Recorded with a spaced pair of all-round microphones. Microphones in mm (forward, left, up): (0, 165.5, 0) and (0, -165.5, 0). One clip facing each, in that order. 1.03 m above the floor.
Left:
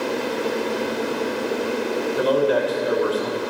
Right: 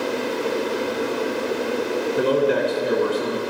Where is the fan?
20° right (ahead or behind), 1.7 m.